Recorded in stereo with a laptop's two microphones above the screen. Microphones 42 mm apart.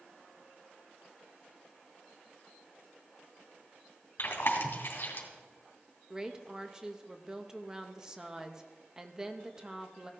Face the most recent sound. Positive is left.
turn(degrees=-15)  # may be behind; listen again after turning